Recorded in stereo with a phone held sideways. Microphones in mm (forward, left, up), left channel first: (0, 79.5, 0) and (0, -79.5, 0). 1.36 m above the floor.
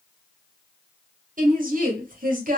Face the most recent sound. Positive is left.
turn(degrees=-60)  # may be behind; listen again after turning